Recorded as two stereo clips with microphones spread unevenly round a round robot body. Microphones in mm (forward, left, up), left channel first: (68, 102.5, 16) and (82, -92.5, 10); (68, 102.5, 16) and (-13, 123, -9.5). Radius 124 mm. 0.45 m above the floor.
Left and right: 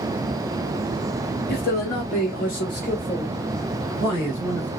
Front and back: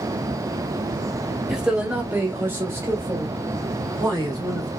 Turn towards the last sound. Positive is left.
turn(degrees=165)